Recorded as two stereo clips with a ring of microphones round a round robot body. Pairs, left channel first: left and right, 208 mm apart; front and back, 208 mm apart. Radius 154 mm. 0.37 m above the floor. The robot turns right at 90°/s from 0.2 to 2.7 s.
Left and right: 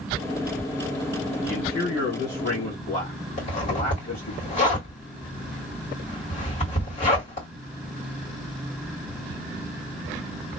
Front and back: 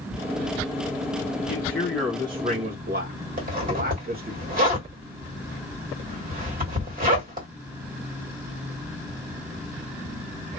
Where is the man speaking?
35° left, 1.6 m; by 4.4 s 150° left, 1.6 m.